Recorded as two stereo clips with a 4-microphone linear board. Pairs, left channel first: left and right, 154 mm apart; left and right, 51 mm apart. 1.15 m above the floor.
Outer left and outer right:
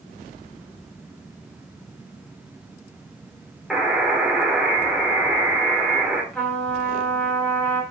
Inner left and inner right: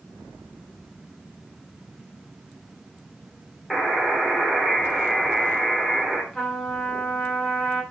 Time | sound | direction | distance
3.7 | a buzzer | centre (ahead or behind) | 3.5 m
6.3 | a trumpet | 5° left (ahead or behind) | 4.5 m